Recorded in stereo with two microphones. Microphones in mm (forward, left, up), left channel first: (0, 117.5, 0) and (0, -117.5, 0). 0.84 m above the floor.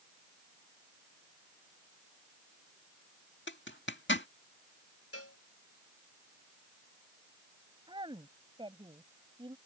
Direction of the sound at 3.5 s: 55° left (ahead or behind).